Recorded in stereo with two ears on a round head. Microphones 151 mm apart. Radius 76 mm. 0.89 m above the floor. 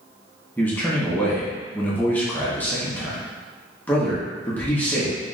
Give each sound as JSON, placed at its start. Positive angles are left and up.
{"t": 0.6, "sound": "a man speaking", "side_deg": 10, "distance_m": 0.9}